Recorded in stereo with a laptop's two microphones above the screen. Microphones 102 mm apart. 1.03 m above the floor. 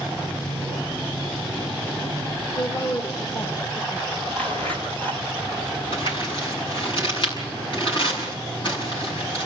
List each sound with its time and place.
2.6 s a woman speaking: 45° left (ahead or behind), 1.2 m
4.3 s a zipper: 20° left (ahead or behind), 4.5 m
5.9 s crumpling: 55° left (ahead or behind), 7.5 m